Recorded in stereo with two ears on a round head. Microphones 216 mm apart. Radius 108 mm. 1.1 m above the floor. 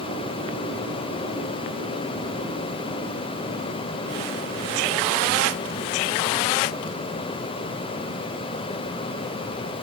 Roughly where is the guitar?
I don't hear a guitar.